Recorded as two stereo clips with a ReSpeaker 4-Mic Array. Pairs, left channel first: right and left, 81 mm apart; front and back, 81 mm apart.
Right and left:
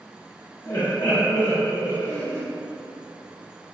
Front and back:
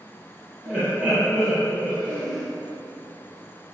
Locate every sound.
0.7 s laughter: 70° right, 1.5 m